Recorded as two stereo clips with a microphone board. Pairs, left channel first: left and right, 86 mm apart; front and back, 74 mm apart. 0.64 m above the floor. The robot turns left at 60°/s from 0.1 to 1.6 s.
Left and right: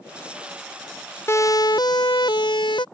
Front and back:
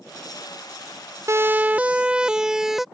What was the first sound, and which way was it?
A siren, 145° left.